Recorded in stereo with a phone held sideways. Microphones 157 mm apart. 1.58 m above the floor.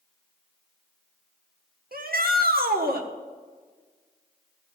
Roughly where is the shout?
Right.